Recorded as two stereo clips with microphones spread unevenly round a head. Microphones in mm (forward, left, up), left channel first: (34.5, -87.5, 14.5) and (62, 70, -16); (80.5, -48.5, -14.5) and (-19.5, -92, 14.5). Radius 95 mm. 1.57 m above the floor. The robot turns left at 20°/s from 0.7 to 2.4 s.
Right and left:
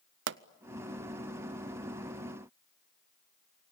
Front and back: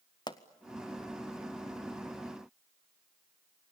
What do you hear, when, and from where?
0.3 s a pop: 85° left, 0.6 m